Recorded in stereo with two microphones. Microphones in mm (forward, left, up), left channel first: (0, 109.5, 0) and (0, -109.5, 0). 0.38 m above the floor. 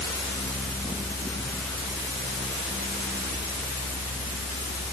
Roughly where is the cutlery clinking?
No cutlery clinking in this recording.